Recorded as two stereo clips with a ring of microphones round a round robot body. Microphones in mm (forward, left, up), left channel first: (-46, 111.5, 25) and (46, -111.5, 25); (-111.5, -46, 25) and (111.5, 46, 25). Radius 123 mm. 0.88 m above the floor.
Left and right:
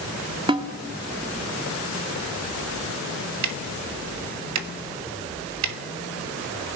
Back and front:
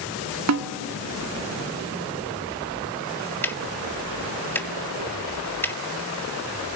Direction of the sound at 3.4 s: 75° right.